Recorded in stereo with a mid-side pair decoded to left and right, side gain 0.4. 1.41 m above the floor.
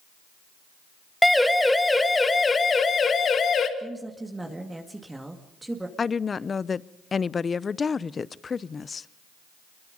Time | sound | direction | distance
1.2 | a siren | 5° left | 2.5 m
3.8 | a woman speaking | 15° right | 2.5 m
6.0 | a woman speaking | 40° left | 0.6 m